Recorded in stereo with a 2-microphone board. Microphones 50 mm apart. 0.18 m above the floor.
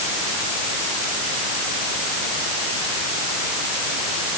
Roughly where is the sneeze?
I don't hear a sneeze.